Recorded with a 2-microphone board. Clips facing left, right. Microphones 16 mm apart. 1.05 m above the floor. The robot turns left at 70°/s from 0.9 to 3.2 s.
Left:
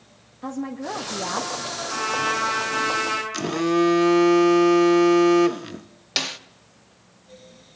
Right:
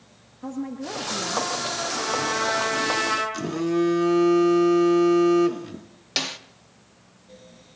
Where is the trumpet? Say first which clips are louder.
Left 4 dB; 110° left, 7.5 m; by 3.2 s 20° left, 7.5 m.